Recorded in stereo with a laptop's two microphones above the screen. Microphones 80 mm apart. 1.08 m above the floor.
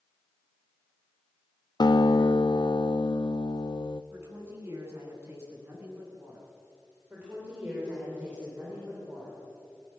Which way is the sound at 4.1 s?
35° right (ahead or behind).